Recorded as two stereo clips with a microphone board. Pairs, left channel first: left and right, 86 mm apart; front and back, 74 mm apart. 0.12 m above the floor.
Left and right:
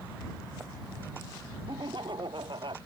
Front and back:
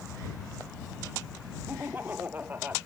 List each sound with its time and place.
1.7 s laughter: 115° right